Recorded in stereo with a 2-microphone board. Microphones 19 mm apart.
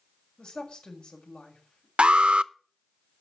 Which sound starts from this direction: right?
An alarm, at 2.0 s.